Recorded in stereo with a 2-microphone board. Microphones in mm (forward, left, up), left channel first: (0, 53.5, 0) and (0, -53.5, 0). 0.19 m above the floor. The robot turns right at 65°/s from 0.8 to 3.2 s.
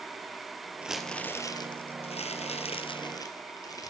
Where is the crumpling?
10° right, 1.7 m; by 3.9 s 145° left, 1.7 m.